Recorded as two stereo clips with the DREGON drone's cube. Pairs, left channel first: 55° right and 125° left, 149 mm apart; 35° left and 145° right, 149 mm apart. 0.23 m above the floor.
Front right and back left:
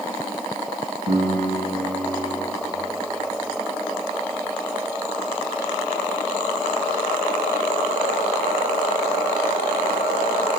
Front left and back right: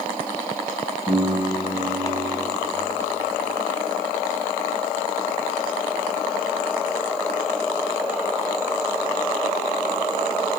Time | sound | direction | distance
1.1 | a piano | 155° left | 8.5 m